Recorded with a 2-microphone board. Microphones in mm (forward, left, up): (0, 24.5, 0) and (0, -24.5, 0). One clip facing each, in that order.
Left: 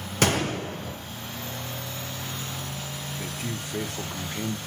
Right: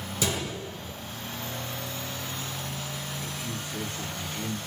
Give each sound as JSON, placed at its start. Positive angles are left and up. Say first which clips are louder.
{"t": 0.2, "sound": "a gunshot", "louder": "left 7 dB", "side_deg": 55, "distance_m": 0.7}
{"t": 3.2, "sound": "a man speaking", "louder": "left 2 dB", "side_deg": 60, "distance_m": 1.3}